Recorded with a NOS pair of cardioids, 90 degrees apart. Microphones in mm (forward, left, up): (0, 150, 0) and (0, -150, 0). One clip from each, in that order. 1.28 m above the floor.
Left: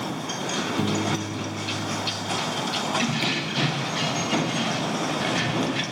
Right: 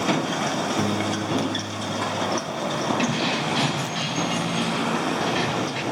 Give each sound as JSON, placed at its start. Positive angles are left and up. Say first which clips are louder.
{"t": 0.8, "sound": "a piano", "louder": "right 1 dB", "azimuth_deg": -5, "distance_m": 0.6}
{"t": 3.0, "sound": "keys jangling", "louder": "right 1 dB", "azimuth_deg": 0, "distance_m": 4.5}